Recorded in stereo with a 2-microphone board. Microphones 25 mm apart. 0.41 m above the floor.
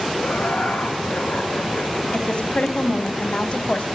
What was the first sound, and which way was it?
Laughter, 70° left (ahead or behind).